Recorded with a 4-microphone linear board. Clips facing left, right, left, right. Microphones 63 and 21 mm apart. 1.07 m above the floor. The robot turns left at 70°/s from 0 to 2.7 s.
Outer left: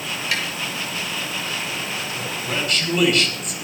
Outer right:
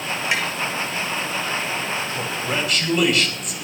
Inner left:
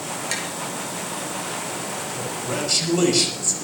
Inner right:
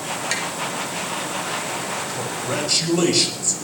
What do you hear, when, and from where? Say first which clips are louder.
0.3 s tapping: outer right 2 dB, inner right 3 dB; 25° right (ahead or behind), 5.5 m; by 0.5 s 35° right (ahead or behind), 5.5 m
2.1 s a man speaking: outer right 2 dB, inner right 2 dB; 135° right, 5 m; by 3.5 s straight behind, 5 m